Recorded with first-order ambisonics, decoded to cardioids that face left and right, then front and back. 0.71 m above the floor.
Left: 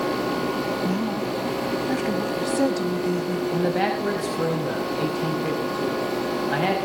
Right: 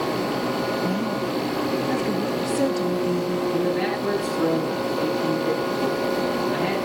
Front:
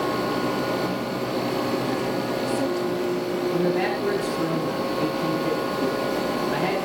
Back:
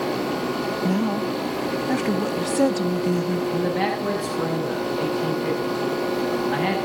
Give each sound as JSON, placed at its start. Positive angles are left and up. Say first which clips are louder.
{"t": 0.8, "sound": "a woman speaking", "louder": "right 1 dB, back 2 dB", "azimuth_deg": 170, "distance_m": 0.8}
{"t": 3.5, "sound": "a man speaking", "louder": "left 3 dB, front 1 dB", "azimuth_deg": 95, "distance_m": 5.0}